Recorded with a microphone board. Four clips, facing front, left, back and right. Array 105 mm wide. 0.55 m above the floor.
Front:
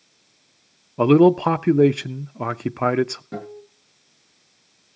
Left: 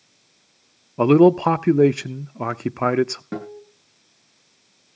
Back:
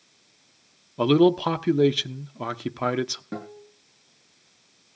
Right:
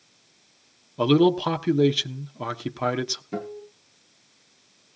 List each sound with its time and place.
1.0 s a man speaking: 50° left, 0.7 m
3.3 s a guitar: 105° left, 9 m